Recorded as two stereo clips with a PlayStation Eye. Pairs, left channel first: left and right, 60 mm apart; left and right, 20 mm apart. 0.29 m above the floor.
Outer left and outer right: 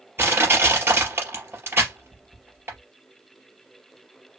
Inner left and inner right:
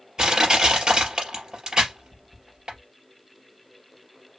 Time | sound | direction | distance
0.2 | crushing | 35° right (ahead or behind) | 3 m